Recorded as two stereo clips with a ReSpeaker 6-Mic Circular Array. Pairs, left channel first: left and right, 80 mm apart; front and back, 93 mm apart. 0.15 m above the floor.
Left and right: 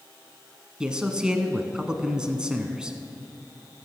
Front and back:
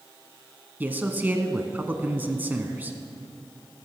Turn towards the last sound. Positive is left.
turn(degrees=-150)